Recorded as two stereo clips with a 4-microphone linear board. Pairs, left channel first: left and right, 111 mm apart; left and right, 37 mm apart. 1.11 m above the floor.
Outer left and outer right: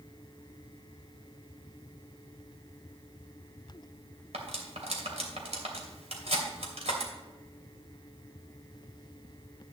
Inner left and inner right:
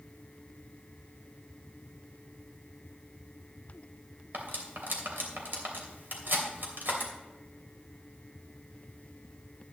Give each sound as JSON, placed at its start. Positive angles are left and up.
{"t": 4.3, "sound": "cutlery clinking", "side_deg": -75, "distance_m": 2.5}